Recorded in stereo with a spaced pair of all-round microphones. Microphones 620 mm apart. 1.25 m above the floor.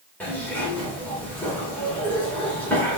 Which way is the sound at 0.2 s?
5° left (ahead or behind).